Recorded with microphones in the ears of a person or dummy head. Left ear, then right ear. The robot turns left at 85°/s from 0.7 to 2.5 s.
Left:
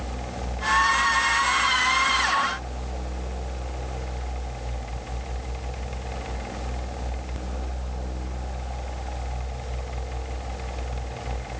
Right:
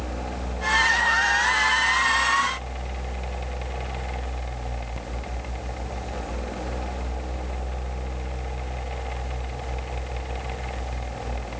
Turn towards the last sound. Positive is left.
No sound to turn to.